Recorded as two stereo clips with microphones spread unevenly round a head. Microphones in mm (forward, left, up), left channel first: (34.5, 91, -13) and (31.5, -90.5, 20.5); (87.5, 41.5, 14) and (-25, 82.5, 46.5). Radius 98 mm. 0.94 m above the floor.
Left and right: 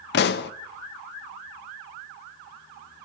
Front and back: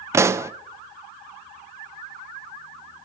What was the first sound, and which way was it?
A pop, 85° left.